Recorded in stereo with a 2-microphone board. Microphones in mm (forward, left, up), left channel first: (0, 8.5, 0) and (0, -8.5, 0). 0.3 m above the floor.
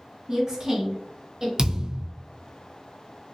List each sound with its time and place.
0.3 s a woman speaking: 35° right (ahead or behind), 1.8 m; by 1.5 s 30° right (ahead or behind), 1.3 m
1.6 s a thud: 35° right (ahead or behind), 0.5 m